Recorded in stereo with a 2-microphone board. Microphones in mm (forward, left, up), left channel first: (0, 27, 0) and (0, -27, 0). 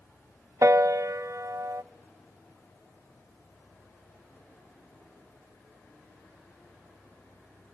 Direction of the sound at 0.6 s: 70° right (ahead or behind).